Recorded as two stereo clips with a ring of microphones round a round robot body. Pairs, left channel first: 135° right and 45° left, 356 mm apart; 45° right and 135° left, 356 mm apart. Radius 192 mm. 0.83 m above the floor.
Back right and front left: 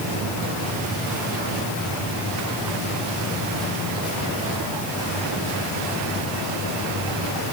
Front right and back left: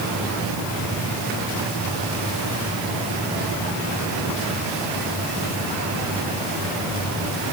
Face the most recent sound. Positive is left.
No sound to turn to.